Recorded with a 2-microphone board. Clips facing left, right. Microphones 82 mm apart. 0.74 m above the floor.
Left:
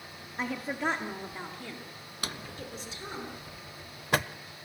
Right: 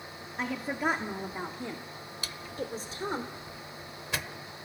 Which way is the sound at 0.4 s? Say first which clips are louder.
Right 1 dB; 5° left (ahead or behind).